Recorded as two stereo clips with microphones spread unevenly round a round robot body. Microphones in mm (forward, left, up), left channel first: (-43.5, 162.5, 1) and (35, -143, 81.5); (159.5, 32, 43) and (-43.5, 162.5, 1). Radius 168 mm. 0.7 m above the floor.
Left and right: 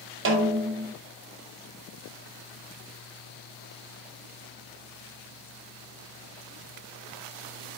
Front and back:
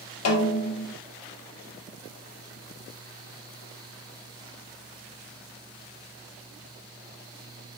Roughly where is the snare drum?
Ahead.